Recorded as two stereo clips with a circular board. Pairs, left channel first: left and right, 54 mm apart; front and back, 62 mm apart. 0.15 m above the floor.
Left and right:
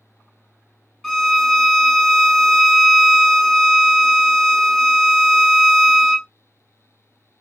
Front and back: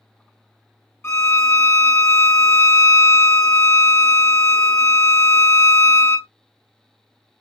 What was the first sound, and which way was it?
A violin, 5° left.